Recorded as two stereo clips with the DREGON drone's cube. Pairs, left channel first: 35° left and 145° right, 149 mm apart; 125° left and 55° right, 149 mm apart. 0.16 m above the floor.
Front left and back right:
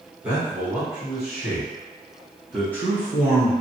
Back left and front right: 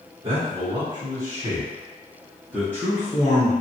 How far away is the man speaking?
About 2.0 m.